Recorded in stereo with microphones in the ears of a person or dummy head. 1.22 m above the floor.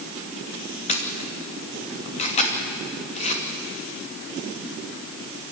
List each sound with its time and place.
0.9 s a camera shutter: 35° left (ahead or behind), 2.5 m